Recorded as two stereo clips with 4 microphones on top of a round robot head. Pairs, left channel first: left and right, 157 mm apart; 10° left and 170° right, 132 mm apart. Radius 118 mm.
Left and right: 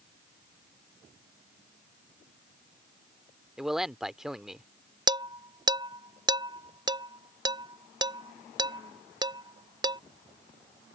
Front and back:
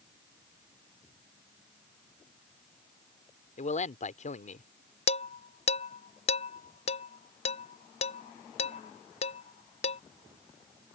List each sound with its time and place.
3.6 s a man speaking: 5° right
5.1 s dishes clattering: 25° right